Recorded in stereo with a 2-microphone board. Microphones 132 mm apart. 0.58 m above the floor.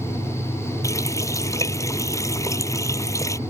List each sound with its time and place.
0.8 s a running tap: 25° left (ahead or behind)